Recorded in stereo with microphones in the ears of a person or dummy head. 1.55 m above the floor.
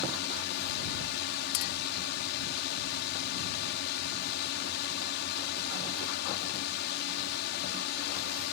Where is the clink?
65° left (ahead or behind).